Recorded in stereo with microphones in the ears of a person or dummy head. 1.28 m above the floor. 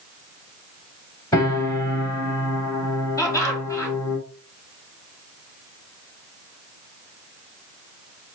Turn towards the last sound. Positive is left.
turn(degrees=15)  # may be behind; listen again after turning